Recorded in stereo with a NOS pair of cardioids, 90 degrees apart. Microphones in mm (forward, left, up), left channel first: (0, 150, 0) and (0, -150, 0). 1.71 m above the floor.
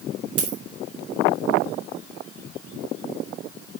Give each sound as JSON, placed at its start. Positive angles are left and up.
{"t": 0.4, "sound": "a dropped coin", "azimuth_deg": -55, "distance_m": 3.0}